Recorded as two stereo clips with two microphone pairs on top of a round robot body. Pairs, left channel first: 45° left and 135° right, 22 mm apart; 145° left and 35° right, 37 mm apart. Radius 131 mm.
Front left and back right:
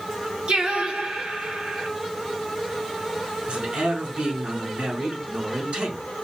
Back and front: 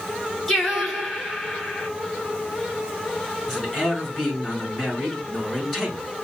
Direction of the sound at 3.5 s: 135° right.